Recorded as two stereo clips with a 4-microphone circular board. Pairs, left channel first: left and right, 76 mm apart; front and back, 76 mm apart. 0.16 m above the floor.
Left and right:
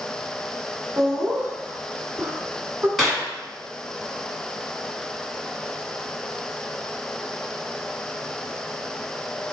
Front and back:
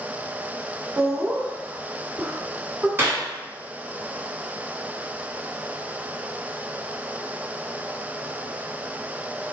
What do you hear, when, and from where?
1.0 s laughter: 130° right, 1.3 m
3.0 s a clap: straight behind, 1.5 m